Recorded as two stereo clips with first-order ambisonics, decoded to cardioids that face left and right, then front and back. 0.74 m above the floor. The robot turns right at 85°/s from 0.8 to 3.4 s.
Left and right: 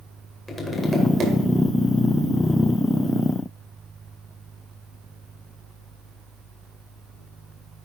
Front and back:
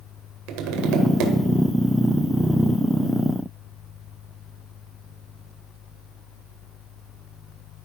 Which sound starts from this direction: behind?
Tapping, at 0.5 s.